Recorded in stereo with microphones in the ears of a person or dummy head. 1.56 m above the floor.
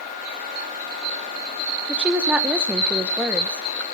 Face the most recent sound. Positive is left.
turn(degrees=0)  # may be behind; listen again after turning